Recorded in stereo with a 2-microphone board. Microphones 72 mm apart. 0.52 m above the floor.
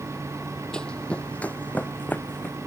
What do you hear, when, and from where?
0.7 s running footsteps: 10° left (ahead or behind); by 2.6 s 25° left (ahead or behind)